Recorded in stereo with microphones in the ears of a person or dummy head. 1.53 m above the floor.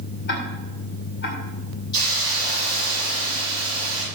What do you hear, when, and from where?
0.3 s ticking: 60° left (ahead or behind), 2 m
1.9 s a hiss: 25° left (ahead or behind), 5.5 m